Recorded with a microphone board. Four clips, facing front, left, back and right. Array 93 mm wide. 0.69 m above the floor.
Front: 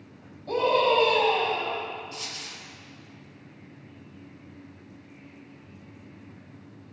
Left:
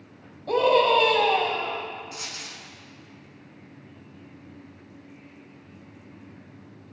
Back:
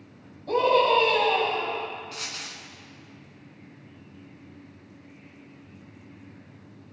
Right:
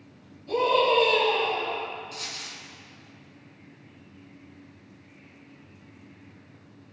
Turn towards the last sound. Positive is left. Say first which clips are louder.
# left 1 dB, back 1 dB
turn(degrees=160)